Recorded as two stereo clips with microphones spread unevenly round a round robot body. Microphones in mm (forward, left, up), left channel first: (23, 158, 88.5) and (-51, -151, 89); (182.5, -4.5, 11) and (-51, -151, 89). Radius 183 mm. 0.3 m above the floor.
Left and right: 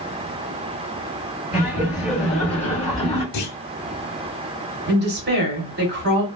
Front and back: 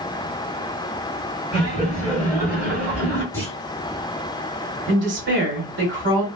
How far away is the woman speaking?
About 1.7 m.